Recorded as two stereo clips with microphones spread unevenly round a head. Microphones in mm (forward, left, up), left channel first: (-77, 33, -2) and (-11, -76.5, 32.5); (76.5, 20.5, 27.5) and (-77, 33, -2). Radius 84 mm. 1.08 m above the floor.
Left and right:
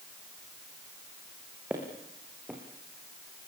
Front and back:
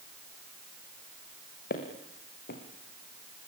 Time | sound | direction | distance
1.7 | footsteps | 20° left | 4.5 m